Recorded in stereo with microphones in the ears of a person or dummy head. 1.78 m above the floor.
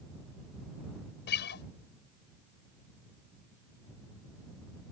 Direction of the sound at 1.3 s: 65° left (ahead or behind).